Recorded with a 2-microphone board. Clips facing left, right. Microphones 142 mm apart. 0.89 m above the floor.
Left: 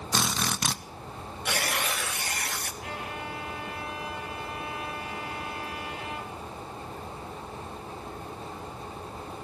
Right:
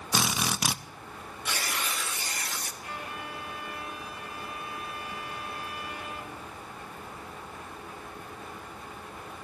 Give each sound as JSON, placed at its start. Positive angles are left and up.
{"t": 0.1, "sound": "a drill", "side_deg": -10, "distance_m": 0.6}
{"t": 1.4, "sound": "tearing paper", "side_deg": 60, "distance_m": 1.2}
{"t": 2.8, "sound": "a violin", "side_deg": 80, "distance_m": 3.5}